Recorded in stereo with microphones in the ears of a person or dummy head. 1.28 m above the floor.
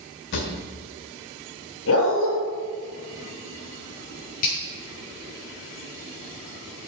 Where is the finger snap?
45° left (ahead or behind), 7 m.